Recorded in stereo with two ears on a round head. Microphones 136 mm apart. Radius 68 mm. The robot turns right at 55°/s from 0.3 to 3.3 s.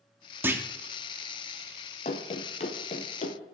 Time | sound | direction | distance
0.4 | a clunk | 15° right (ahead or behind) | 0.6 m
2.0 | running footsteps | 40° left (ahead or behind) | 0.9 m